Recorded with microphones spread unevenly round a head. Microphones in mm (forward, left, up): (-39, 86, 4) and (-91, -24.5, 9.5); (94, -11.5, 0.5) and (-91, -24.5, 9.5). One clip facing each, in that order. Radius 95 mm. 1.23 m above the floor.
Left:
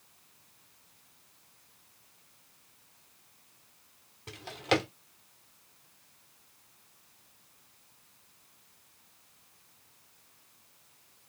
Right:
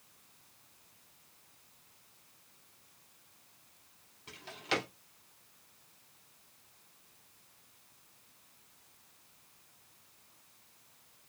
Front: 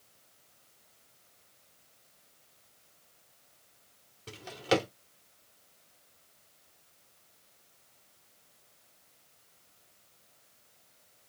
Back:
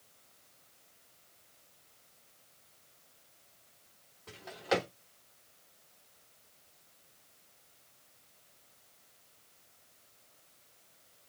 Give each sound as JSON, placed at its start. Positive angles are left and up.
{"t": 4.3, "sound": "a drawer", "azimuth_deg": 45, "distance_m": 1.1}